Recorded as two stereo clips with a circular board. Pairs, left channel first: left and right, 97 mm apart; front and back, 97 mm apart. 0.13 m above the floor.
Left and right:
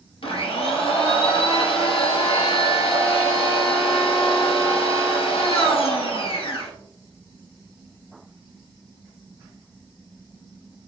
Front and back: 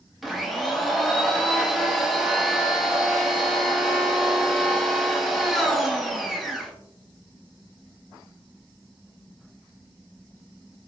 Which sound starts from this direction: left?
A blender, at 0.2 s.